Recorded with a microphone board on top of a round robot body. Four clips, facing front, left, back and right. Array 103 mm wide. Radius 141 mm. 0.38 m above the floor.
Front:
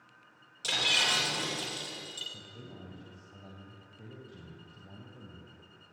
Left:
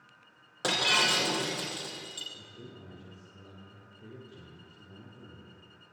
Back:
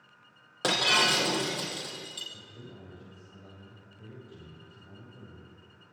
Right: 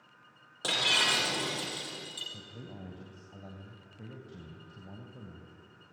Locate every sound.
0.6 s breaking glass: 160° left, 5.5 m
2.3 s a man speaking: 75° right, 4 m